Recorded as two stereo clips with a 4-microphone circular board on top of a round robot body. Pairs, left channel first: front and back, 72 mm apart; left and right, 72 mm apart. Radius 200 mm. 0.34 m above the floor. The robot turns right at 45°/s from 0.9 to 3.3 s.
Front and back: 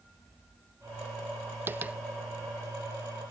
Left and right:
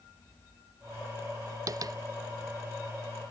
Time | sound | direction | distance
1.7 | tapping | 120° right | 0.7 m